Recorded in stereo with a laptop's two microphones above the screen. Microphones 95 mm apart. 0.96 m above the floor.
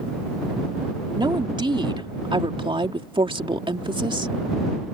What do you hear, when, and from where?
1.1 s a woman speaking: 55° right (ahead or behind); by 4.3 s 60° right (ahead or behind)